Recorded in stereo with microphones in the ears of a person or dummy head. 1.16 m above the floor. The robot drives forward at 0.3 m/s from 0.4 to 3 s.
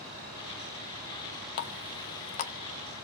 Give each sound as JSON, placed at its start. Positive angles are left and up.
{"t": 1.6, "sound": "a running tap", "side_deg": 45, "distance_m": 0.7}